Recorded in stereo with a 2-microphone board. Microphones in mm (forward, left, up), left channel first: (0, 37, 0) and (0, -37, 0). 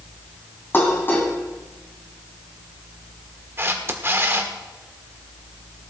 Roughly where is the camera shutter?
Right.